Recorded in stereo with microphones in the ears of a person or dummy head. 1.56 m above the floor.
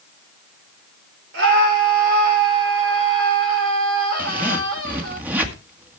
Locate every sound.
1.3 s a scream: 70° right (ahead or behind), 5.5 m
4.2 s a zipper: 15° right (ahead or behind), 2 m